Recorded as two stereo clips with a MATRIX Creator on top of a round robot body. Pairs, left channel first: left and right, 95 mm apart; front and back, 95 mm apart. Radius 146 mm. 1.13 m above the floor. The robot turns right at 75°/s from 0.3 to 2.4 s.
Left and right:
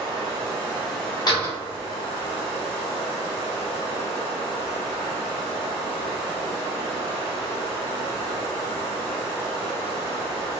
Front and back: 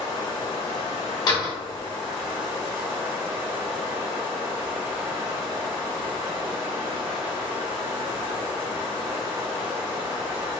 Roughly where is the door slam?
Ahead left.